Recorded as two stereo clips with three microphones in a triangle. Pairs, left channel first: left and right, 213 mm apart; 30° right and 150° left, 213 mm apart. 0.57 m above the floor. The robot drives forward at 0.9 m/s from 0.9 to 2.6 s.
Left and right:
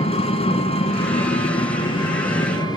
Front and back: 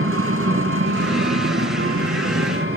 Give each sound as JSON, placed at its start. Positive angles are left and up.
{"t": 0.0, "sound": "an engine running", "azimuth_deg": 150, "distance_m": 3.5}